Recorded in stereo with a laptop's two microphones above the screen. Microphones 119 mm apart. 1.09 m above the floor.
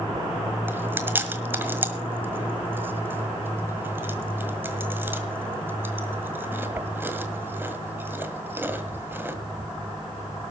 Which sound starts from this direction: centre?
Chewing, at 0.7 s.